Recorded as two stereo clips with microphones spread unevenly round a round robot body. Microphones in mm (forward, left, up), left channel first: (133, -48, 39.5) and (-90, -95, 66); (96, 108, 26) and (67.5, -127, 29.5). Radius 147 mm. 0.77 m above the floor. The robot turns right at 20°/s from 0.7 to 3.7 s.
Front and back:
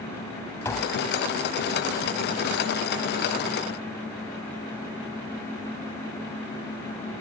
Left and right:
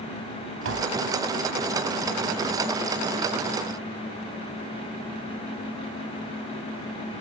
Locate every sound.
0.7 s tapping: 65° right; by 1.0 s 60° right